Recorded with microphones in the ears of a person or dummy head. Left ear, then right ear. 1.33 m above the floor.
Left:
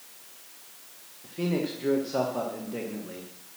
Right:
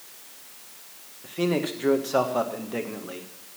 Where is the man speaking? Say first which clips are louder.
Right 4 dB; 45° right (ahead or behind), 1.4 m.